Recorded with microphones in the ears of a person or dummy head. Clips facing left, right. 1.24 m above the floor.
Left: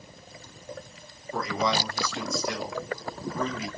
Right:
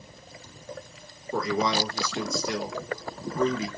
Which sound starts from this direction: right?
A man speaking, at 1.3 s.